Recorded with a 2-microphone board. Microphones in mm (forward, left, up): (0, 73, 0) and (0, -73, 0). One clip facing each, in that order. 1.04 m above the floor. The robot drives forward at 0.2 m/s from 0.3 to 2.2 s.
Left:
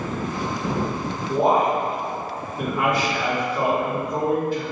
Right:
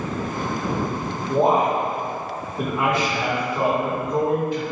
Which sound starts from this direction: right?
A man speaking, at 1.3 s.